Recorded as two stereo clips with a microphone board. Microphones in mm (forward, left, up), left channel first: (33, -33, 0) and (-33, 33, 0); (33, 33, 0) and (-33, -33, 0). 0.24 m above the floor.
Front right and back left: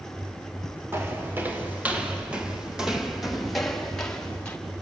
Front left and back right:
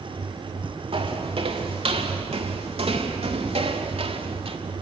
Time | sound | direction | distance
0.9 | footsteps | 160° right | 4 m